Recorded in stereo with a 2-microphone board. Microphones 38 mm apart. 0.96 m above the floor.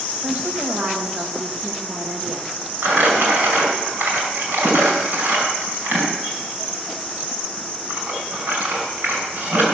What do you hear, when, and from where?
0.2 s a woman speaking: 60° right (ahead or behind), 1.2 m
2.8 s crumpling: 75° right (ahead or behind), 4.5 m